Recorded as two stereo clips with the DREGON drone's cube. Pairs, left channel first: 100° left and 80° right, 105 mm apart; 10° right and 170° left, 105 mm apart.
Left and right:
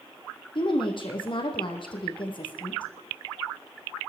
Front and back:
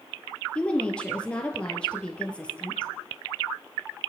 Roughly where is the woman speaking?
Left.